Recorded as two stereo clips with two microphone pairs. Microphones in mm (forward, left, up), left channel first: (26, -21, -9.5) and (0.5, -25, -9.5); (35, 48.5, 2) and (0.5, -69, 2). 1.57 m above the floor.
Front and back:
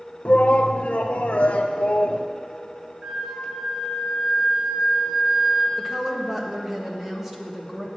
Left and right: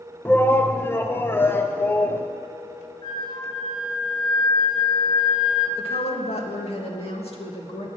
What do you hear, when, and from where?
0.2 s a shout: 5° left, 0.6 m
3.0 s a flute: 120° left, 1.4 m
5.8 s a woman speaking: 105° left, 1.6 m